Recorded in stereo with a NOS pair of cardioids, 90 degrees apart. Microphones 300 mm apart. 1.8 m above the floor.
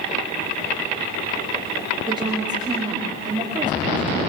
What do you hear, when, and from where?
2.1 s a woman speaking: 15° right, 5.5 m